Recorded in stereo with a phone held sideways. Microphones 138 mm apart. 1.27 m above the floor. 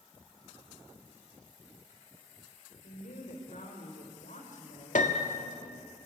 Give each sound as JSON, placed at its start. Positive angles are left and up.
{"t": 2.8, "sound": "a woman speaking", "side_deg": 75, "distance_m": 5.0}
{"t": 5.0, "sound": "a piano", "side_deg": 75, "distance_m": 1.6}